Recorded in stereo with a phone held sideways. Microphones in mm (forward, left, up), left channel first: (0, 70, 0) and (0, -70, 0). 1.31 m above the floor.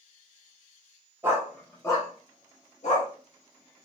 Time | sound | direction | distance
1.2 | a dog barking | 20° right (ahead or behind) | 0.8 m